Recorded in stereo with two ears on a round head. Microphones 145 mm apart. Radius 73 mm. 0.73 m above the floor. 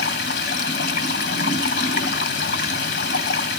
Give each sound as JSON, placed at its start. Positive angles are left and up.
{"t": 0.0, "sound": "running water", "side_deg": 65, "distance_m": 2.0}